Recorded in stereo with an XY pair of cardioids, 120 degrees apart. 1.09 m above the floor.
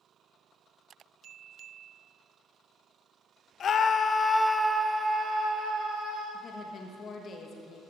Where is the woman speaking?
50° left, 1.3 m.